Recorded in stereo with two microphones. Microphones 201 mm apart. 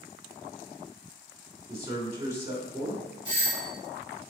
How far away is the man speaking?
About 1.9 m.